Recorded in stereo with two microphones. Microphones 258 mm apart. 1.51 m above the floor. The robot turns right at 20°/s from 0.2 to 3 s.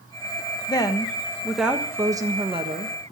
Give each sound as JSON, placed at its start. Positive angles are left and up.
{"t": 0.7, "sound": "a woman speaking", "azimuth_deg": 165, "distance_m": 1.4}